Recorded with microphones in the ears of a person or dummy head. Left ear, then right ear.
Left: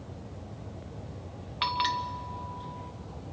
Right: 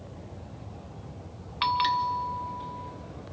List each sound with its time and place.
1.6 s a bell: 10° right (ahead or behind), 0.8 m